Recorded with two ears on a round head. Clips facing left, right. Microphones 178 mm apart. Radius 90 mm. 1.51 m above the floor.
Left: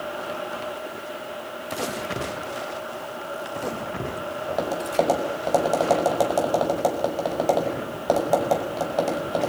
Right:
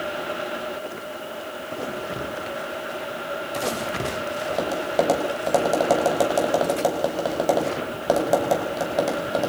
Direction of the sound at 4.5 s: 10° right (ahead or behind).